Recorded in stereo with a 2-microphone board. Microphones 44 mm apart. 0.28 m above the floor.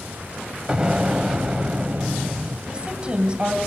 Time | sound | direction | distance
0.7 | an explosion | 20° right (ahead or behind) | 1.0 m
2.7 | a woman speaking | 25° right (ahead or behind) | 1.9 m